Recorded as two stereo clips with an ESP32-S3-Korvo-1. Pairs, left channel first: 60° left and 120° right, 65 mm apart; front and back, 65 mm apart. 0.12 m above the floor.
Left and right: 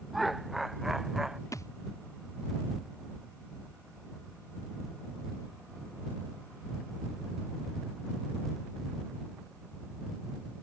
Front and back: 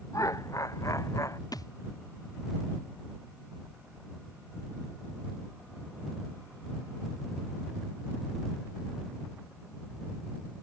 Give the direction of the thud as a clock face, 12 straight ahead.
11 o'clock.